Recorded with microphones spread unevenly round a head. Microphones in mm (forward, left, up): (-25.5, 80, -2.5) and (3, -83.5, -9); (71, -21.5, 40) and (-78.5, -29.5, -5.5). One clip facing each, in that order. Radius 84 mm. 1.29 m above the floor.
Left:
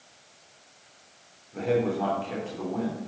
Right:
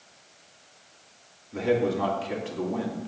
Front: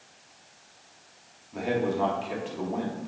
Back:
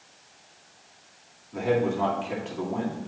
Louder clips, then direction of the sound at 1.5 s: Right 1 dB, back 3 dB; 85° right.